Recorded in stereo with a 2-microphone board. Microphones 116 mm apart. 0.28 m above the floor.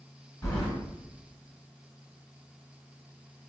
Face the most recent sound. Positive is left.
turn(degrees=20)  # may be behind; listen again after turning